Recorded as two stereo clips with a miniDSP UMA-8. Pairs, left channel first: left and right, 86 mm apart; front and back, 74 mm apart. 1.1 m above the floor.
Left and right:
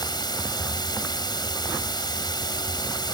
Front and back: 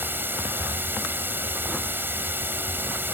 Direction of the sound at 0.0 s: 120° left.